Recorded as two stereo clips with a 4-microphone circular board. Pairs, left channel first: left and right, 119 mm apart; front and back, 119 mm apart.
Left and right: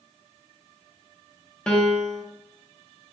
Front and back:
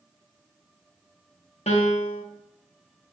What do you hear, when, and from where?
1.7 s a piano: 10° left, 1.3 m